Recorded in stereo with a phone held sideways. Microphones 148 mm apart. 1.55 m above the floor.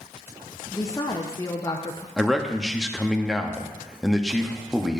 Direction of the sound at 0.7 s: 20° left (ahead or behind).